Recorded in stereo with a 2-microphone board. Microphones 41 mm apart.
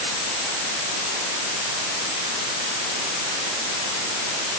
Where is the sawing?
I don't hear sawing.